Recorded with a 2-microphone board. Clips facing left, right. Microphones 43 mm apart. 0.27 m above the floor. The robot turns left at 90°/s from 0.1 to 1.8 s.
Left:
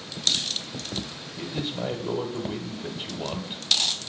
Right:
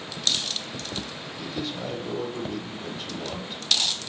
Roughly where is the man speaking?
Centre.